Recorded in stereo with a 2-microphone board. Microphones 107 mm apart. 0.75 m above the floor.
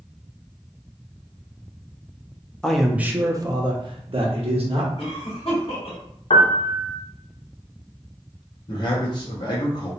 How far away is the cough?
About 1.5 m.